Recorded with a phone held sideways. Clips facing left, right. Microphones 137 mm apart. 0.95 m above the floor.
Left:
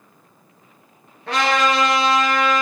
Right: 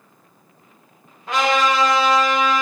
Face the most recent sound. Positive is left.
turn(degrees=75)  # may be behind; listen again after turning